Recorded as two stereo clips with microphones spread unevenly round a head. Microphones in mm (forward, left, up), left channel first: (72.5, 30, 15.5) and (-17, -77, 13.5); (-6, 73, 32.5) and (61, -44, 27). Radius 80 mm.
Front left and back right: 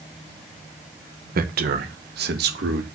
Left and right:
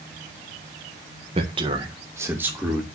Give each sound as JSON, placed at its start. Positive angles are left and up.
{"t": 1.4, "sound": "a man speaking", "azimuth_deg": -115, "distance_m": 1.6}